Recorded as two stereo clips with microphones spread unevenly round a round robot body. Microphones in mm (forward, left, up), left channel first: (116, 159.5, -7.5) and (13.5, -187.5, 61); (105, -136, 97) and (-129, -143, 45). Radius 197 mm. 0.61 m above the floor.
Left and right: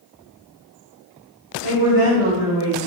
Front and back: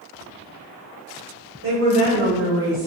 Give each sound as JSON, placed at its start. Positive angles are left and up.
{"t": 1.6, "sound": "a woman speaking", "azimuth_deg": -160, "distance_m": 3.5}